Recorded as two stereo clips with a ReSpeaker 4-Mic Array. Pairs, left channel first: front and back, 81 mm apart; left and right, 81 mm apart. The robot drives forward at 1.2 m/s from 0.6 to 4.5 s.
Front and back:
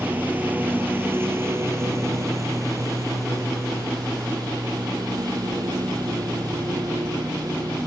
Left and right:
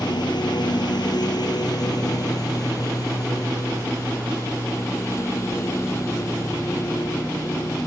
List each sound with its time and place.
0.0 s a lawn mower: 110° left; by 7.9 s 140° left